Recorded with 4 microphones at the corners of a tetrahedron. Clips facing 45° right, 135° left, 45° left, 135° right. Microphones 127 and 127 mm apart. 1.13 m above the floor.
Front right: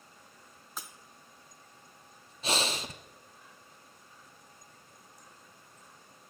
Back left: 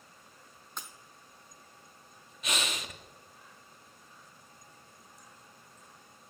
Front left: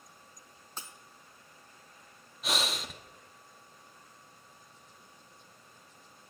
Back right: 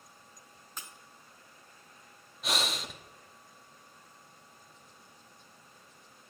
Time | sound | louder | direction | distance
0.8 | breaking glass | even, front left 2 dB | 40° left | 0.8 m
2.4 | breathing | front right 4 dB, even | 45° right | 0.6 m